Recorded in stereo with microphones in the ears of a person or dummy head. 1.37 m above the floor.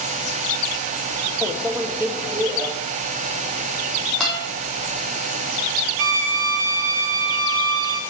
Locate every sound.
1.4 s a microwave: 15° right (ahead or behind), 1.0 m
4.2 s a guitar: centre (ahead or behind), 4.5 m
6.0 s a violin: 70° right (ahead or behind), 1.2 m